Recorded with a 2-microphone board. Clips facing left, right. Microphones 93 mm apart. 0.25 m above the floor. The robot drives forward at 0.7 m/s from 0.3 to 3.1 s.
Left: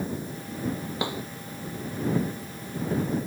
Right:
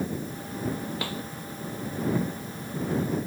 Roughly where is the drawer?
Left.